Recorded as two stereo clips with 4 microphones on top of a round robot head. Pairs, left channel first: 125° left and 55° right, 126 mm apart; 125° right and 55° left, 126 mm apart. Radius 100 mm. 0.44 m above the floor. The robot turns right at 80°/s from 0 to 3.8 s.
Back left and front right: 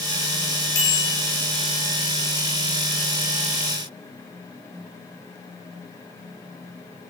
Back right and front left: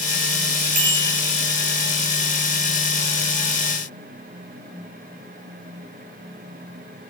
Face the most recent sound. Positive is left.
turn(degrees=-55)